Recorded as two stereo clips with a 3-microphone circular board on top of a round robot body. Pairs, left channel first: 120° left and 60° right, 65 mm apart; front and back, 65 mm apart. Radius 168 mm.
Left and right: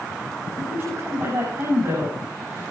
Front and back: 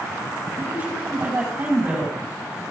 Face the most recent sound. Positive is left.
turn(degrees=-120)